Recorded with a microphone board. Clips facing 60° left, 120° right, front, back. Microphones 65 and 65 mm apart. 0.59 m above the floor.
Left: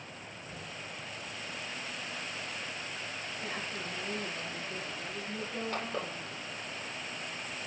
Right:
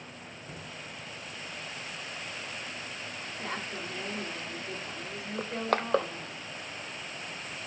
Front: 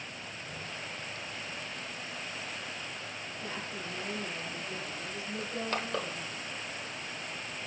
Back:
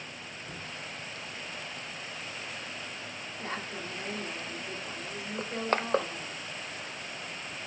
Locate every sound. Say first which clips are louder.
0.4 s knocking: right 1 dB, even; 170° right, 3.5 m
3.4 s a woman speaking: right 3 dB, back 3 dB; 145° right, 6.5 m
5.4 s crushing: right 8 dB, back 5 dB; 130° right, 0.7 m